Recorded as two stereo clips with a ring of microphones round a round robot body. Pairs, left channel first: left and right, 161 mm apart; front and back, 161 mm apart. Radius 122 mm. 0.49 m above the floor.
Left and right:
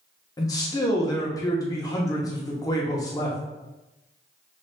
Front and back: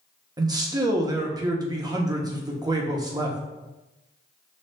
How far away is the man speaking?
About 0.9 m.